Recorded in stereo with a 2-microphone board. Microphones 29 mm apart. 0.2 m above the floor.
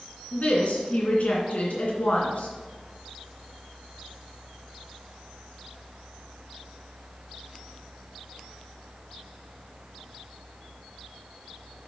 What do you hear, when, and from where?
0.3 s a woman speaking: 55° left (ahead or behind), 2.5 m